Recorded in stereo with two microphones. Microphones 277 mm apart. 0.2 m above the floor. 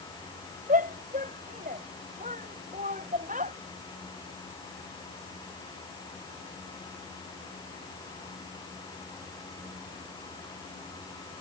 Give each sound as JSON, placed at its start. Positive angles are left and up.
{"t": 0.7, "sound": "a shout", "side_deg": -30}